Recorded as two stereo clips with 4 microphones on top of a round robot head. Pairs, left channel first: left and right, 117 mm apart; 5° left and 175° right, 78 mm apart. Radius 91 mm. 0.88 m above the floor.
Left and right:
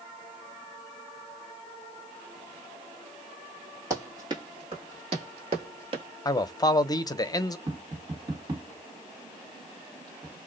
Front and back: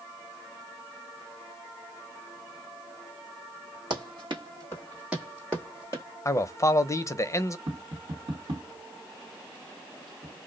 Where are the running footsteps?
160° right, 1.1 m; by 6.0 s 65° right, 1.2 m.